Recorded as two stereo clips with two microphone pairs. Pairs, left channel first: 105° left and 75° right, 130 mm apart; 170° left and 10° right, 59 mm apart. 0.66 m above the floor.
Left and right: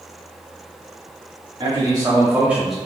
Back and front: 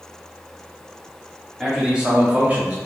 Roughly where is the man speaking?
Right.